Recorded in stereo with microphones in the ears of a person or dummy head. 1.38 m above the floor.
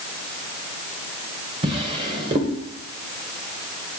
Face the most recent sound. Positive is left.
turn(degrees=-30)  # may be behind; listen again after turning